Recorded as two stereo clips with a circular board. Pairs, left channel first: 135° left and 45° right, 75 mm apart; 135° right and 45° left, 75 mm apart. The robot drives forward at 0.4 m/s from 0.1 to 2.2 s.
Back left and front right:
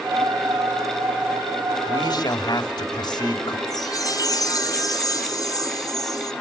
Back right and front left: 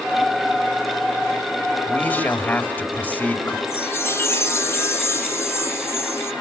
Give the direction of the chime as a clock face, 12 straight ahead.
6 o'clock.